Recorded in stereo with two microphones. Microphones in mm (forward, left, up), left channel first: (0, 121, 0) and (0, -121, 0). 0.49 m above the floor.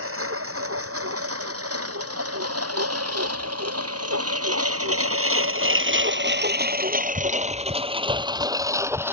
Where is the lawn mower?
65° right (ahead or behind); by 9.1 s 10° right (ahead or behind).